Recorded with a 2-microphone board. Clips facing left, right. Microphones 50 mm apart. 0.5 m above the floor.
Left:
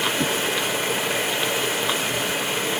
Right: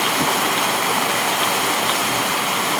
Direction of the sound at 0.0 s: 70° right (ahead or behind).